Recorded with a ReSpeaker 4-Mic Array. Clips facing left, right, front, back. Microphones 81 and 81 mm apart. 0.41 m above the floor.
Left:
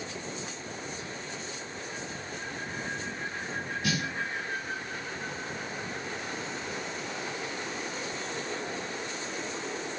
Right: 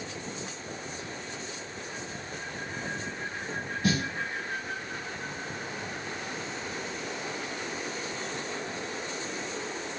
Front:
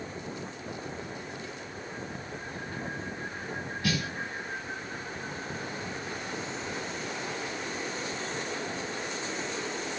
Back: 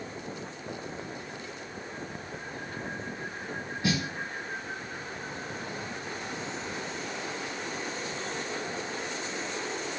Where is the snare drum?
125° right, 0.7 m.